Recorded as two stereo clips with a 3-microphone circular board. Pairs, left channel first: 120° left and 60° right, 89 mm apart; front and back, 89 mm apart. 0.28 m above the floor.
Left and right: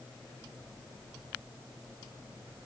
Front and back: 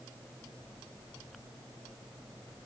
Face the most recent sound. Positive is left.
No sound to turn to.